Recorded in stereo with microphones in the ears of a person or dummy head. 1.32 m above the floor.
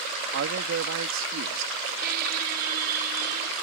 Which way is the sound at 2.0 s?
50° right (ahead or behind).